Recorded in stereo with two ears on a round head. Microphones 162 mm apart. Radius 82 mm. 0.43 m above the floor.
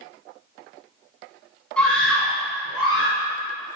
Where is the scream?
5° left (ahead or behind), 3.5 m; by 3.2 s 10° right (ahead or behind), 5 m.